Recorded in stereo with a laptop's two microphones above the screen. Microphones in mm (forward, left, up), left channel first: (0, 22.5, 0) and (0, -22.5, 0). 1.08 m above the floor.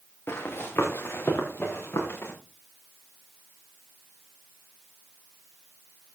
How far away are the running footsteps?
About 5.5 m.